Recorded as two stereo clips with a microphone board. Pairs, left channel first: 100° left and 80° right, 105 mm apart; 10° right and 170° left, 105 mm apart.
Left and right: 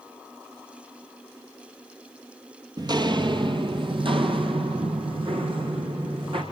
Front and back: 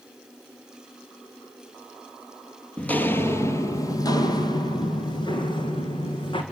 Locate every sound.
2.8 s footsteps: 80° right, 1.6 m; by 6.4 s 45° right, 4.5 m